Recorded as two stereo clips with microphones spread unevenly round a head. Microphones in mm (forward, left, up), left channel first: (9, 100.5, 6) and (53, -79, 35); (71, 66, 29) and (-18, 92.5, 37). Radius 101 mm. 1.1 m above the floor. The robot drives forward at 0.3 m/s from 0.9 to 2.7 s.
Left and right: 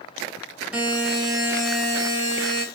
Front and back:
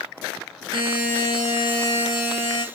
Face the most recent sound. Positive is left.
turn(degrees=-170)